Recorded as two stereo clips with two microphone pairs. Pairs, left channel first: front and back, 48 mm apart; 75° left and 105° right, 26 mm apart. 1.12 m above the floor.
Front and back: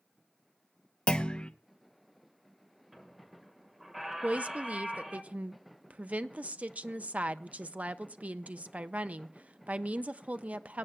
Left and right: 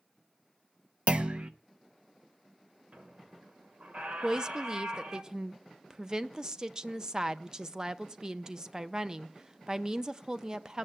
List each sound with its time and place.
1.1 s a clunk: 65° right, 0.7 m
2.9 s a squeak: 100° right, 1.3 m
4.2 s a woman speaking: 140° right, 0.5 m